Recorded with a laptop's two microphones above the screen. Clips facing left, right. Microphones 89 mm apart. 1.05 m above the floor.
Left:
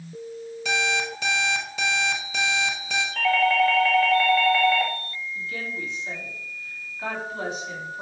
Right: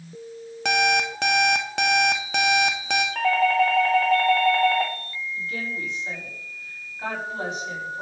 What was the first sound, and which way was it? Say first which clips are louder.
An alarm clock: right 5 dB; 65° right (ahead or behind).